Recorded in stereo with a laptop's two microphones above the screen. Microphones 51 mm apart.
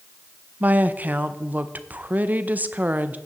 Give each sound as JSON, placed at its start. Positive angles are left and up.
{"t": 0.6, "sound": "a woman speaking", "side_deg": -35, "distance_m": 0.6}